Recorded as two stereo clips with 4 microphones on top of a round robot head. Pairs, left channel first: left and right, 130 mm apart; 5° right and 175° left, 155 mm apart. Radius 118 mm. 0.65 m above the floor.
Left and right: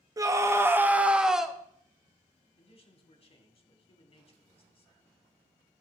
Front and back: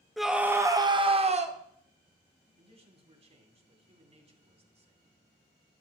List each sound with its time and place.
0.2 s a scream: 95° right, 1.0 m; by 1.6 s straight behind, 1.3 m
2.6 s a man speaking: 130° left, 2.5 m